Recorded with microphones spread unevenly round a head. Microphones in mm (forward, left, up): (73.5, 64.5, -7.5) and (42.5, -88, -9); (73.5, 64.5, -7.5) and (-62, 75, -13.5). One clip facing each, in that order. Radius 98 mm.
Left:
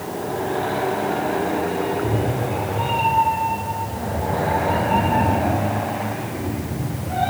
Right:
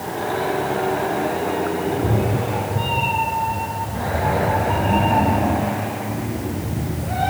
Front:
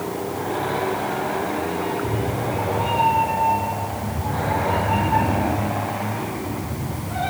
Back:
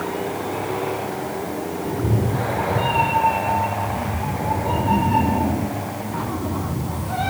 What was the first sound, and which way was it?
A cat meowing, 155° right.